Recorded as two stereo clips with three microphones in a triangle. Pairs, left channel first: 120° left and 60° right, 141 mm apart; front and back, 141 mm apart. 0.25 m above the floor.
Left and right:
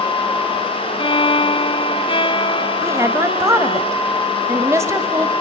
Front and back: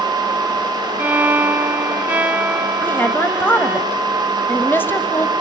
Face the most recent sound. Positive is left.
turn(degrees=-45)